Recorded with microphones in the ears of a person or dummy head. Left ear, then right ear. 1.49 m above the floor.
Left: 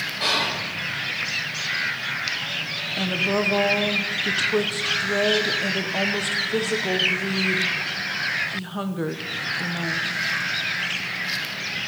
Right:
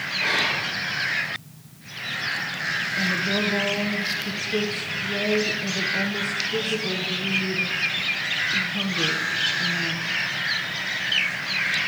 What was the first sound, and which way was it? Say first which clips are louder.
Whispering: even; 85° left.